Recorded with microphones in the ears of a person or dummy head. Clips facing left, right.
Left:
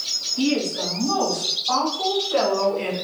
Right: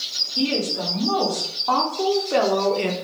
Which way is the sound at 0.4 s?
85° right.